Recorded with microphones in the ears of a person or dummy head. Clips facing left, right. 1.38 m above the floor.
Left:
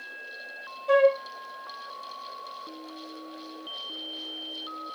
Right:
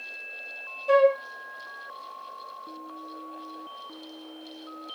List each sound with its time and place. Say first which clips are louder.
0.9 s a flute: right 1 dB; 20° right (ahead or behind), 0.6 m